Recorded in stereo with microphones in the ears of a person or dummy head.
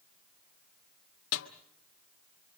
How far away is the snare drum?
About 1.3 m.